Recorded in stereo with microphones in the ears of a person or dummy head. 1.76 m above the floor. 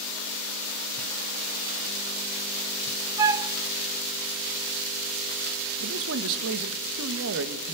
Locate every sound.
3.2 s a flute: 15° right (ahead or behind), 0.6 m
5.8 s a man speaking: 65° right (ahead or behind), 1.8 m